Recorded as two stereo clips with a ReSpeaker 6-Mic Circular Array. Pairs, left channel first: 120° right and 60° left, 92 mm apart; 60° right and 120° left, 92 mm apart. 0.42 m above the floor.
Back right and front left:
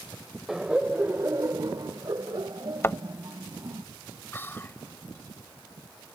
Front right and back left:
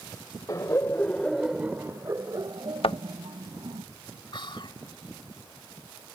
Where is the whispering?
60° right.